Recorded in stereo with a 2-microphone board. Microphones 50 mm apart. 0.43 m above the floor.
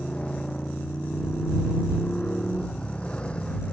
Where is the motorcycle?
20° left (ahead or behind).